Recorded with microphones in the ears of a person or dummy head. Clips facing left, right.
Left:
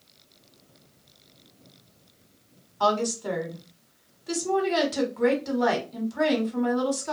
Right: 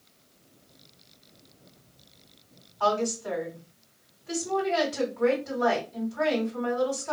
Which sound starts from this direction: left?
A woman speaking, at 2.8 s.